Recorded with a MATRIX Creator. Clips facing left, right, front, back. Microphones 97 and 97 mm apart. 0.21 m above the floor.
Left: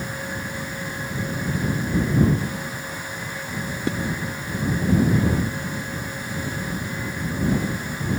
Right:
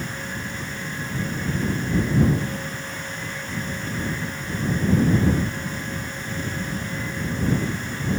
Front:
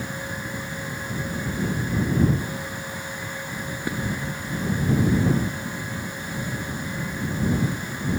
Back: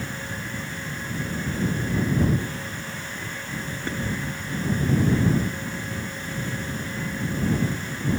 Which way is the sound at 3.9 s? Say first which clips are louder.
Left 5 dB, front 2 dB; 80° left.